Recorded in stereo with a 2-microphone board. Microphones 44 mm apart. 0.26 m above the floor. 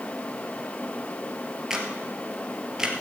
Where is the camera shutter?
10° right (ahead or behind), 1.9 m.